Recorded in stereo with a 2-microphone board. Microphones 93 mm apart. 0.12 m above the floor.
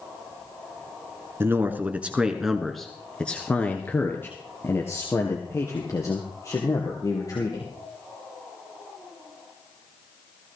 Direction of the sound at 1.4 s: 25° right (ahead or behind).